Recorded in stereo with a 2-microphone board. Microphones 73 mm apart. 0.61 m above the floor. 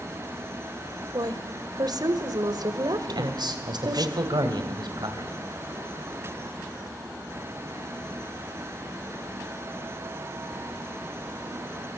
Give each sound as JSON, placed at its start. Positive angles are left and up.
{"t": 1.1, "sound": "a woman speaking", "side_deg": -60, "distance_m": 2.0}
{"t": 3.1, "sound": "a man speaking", "side_deg": -70, "distance_m": 3.0}